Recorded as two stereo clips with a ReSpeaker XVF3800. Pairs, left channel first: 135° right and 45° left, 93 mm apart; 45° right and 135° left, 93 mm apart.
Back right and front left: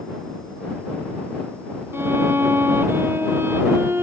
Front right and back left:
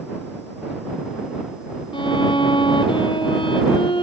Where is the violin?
20° right.